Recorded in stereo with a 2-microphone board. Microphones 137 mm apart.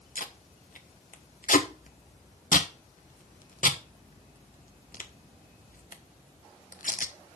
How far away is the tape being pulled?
About 1.3 m.